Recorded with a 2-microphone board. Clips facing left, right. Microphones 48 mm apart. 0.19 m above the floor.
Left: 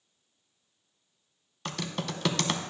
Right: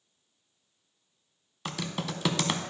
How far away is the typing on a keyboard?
About 0.5 m.